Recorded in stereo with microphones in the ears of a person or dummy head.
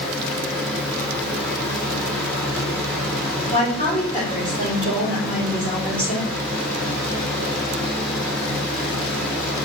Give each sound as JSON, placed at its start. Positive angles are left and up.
{"t": 0.0, "sound": "a fan", "side_deg": 10, "distance_m": 2.5}
{"t": 3.5, "sound": "a woman speaking", "side_deg": 25, "distance_m": 4.5}